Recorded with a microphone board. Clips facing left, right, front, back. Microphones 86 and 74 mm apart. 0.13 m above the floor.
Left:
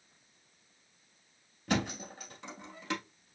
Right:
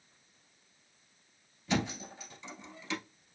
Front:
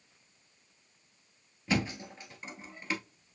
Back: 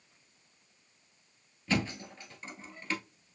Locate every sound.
1.7 s a thud: 70° left, 1.1 m